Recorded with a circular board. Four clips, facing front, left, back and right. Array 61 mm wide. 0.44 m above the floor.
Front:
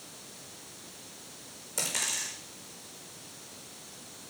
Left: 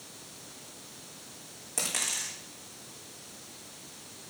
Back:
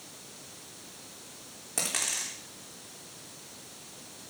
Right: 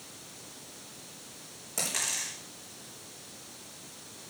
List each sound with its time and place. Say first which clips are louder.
1.8 s a dropped coin: even, even; 175° left, 5.5 m